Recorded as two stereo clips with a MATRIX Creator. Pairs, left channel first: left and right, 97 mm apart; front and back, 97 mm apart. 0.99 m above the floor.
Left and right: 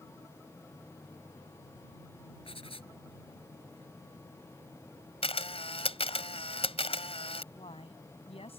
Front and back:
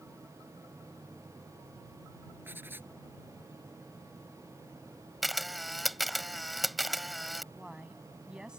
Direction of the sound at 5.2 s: 90° left.